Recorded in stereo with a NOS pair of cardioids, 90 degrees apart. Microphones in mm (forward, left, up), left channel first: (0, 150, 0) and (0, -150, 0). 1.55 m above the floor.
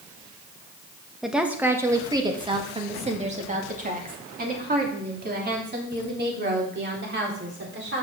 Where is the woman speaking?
Straight ahead, 1.5 m; by 8.0 s 40° right, 4.5 m.